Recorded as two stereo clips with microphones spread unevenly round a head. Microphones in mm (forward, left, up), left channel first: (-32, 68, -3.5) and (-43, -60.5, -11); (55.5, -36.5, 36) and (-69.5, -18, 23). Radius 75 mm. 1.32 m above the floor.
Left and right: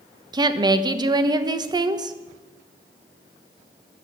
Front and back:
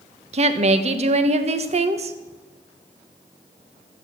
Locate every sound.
0.3 s a woman speaking: 155° right, 1.1 m